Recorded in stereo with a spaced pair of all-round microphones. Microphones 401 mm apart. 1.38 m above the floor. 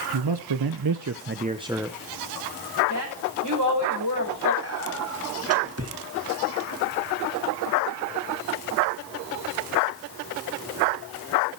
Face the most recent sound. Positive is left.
turn(degrees=-35)  # may be behind; listen again after turning